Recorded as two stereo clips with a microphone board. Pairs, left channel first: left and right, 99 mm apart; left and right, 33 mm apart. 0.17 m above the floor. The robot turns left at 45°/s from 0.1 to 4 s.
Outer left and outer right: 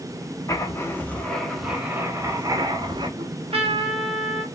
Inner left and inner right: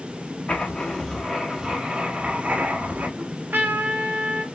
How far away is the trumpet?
About 0.6 m.